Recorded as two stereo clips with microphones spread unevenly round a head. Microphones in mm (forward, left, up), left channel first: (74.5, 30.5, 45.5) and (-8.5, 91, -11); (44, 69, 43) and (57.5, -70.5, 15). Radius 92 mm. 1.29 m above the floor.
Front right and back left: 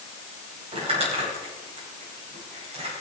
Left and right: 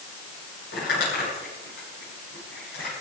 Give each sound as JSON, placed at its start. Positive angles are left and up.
{"t": 0.7, "sound": "crumpling", "azimuth_deg": 130, "distance_m": 8.5}